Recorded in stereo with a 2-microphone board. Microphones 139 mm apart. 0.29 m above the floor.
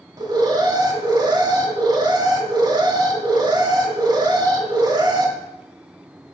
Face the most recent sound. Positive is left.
turn(degrees=-35)  # may be behind; listen again after turning